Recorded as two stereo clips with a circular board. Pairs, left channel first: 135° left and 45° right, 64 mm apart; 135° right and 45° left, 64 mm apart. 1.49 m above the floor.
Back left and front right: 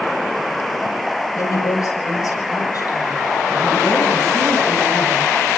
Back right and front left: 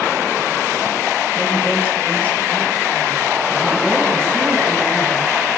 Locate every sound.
1.4 s a woman speaking: 165° left, 8.5 m; by 5.3 s 150° left, 14 m